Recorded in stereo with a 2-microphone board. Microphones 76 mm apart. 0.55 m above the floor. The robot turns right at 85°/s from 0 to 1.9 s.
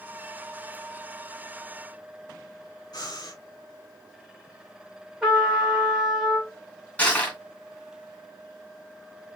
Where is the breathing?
55° left (ahead or behind), 2 m.